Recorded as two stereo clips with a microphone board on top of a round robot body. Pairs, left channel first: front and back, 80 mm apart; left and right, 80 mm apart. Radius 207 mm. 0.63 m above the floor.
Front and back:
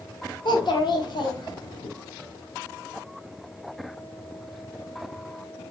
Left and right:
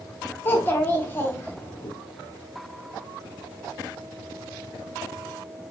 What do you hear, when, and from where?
0.5 s a child speaking: 25° left, 0.9 m